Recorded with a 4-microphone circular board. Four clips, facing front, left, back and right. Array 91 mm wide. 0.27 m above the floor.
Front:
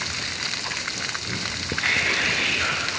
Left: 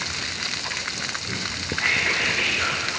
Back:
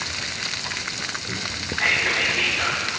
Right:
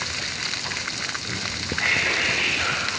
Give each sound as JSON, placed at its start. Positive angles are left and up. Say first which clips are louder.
{"t": 1.7, "sound": "whispering", "louder": "even, back 2 dB", "azimuth_deg": -150, "distance_m": 5.0}